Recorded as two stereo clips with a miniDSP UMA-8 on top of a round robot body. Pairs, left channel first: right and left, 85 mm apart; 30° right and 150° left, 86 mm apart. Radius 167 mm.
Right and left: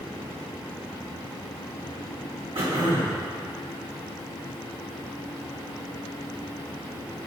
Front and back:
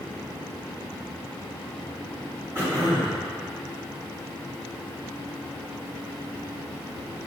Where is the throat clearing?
85° left, 2 m.